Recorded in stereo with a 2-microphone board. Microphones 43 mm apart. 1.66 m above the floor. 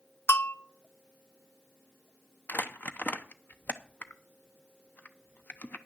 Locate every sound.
0.3 s a bell: 60° left (ahead or behind), 0.8 m
2.5 s crumpling: 40° left (ahead or behind), 0.8 m